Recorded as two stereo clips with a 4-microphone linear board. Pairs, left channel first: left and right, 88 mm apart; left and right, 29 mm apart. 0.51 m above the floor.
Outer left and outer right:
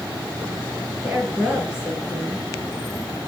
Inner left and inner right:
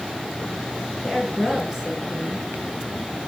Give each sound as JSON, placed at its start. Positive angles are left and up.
{"t": 1.0, "sound": "a woman speaking", "side_deg": -10, "distance_m": 7.0}